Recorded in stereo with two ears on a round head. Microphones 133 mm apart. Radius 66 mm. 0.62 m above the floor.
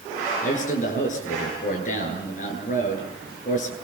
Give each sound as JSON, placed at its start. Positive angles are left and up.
{"t": 0.4, "sound": "a man speaking", "side_deg": 55, "distance_m": 9.0}